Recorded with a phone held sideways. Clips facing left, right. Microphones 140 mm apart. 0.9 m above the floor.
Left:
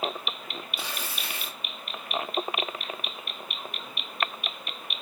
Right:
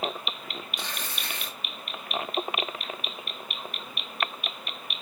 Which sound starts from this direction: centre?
Tearing paper, at 0.8 s.